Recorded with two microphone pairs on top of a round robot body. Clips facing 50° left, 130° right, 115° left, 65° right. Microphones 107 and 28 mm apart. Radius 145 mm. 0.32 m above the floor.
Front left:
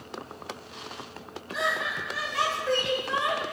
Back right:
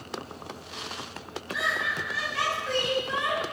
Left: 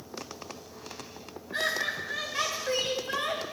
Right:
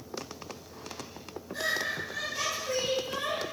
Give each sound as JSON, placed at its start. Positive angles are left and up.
{"t": 1.5, "sound": "laughter", "azimuth_deg": 90, "distance_m": 8.5}